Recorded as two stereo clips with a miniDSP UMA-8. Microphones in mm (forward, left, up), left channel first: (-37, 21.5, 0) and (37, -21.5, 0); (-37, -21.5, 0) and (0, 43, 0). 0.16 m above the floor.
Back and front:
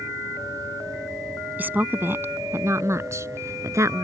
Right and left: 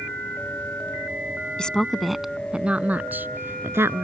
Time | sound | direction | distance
1.6 | a woman speaking | 60° right | ?